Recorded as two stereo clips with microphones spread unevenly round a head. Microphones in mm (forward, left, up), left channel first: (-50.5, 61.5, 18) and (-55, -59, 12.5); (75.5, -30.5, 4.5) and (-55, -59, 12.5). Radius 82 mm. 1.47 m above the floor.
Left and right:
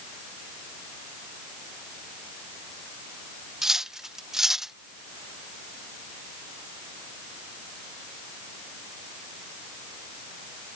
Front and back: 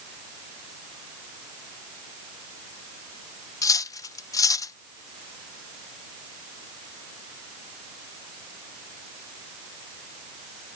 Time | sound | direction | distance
3.6 | cutlery clinking | 5° right | ?